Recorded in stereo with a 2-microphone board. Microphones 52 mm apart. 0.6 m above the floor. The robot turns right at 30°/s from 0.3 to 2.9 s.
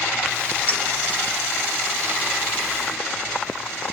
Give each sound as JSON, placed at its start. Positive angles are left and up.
{"t": 0.7, "sound": "a clink", "side_deg": 35, "distance_m": 1.0}